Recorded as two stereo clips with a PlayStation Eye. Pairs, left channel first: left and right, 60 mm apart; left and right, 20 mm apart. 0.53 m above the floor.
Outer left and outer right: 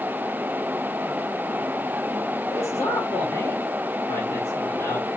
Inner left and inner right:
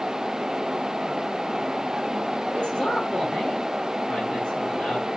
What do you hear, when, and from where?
2.5 s a man speaking: 35° left (ahead or behind), 1.5 m